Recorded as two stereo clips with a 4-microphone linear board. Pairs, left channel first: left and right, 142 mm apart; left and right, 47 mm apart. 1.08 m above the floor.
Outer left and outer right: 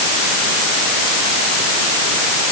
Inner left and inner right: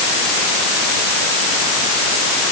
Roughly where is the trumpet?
No trumpet in this recording.